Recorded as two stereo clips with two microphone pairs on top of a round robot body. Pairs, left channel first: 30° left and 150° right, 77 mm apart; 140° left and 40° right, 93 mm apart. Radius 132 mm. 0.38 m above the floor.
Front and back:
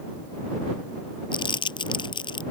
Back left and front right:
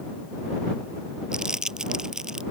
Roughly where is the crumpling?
Ahead left.